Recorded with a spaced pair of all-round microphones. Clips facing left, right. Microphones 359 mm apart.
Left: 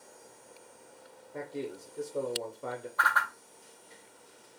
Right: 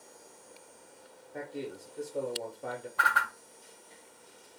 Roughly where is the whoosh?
Right.